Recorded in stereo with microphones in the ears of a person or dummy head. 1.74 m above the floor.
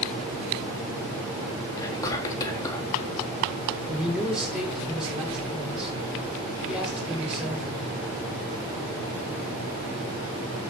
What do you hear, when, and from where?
1.8 s whispering: 20° left (ahead or behind), 4 m
3.9 s a man speaking: 5° right (ahead or behind), 6.5 m